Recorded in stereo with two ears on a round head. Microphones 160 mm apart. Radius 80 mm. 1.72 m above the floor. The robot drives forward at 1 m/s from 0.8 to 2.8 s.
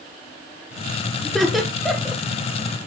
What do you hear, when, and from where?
1.2 s laughter: centre (ahead or behind), 1.6 m